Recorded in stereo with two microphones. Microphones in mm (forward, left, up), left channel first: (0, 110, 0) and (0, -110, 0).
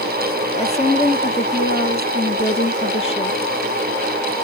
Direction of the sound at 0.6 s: 30° left (ahead or behind).